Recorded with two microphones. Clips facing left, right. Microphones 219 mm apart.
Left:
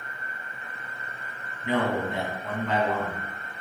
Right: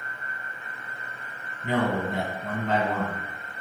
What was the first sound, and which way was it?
A man speaking, 45° right (ahead or behind).